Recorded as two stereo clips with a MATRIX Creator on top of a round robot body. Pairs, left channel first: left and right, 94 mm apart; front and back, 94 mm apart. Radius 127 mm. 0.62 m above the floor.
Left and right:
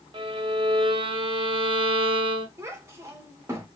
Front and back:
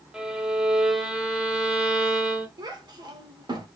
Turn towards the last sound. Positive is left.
turn(degrees=-145)